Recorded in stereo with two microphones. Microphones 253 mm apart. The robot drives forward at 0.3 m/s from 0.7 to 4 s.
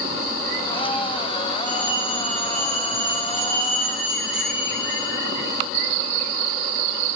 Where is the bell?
65° left (ahead or behind), 10 m; by 5.5 s 70° left (ahead or behind), 9.5 m.